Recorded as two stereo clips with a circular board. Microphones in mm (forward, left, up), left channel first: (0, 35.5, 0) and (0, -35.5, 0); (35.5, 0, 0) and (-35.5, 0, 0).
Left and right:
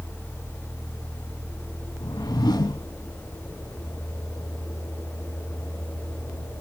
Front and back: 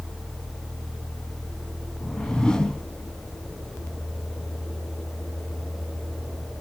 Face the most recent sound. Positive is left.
turn(degrees=80)